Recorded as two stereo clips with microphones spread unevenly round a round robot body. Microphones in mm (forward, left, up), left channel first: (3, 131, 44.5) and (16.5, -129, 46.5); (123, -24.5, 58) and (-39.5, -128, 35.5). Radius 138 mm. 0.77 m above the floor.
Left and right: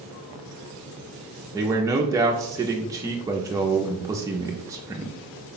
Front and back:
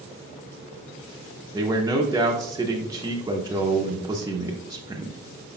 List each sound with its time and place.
1.5 s a man speaking: 150° right, 0.5 m